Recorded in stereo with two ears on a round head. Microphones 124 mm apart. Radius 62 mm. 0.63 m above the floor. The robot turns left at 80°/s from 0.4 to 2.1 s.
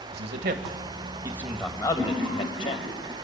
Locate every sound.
0.1 s a man speaking: 75° right (ahead or behind), 2.5 m; by 2.9 s 40° left (ahead or behind), 2.5 m
2.0 s laughter: 20° left (ahead or behind), 9.5 m; by 3.1 s 10° left (ahead or behind), 9.5 m